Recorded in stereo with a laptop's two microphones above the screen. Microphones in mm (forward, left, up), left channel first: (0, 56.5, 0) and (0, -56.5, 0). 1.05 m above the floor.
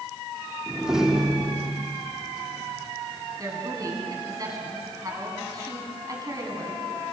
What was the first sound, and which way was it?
A door slam, 5° right (ahead or behind).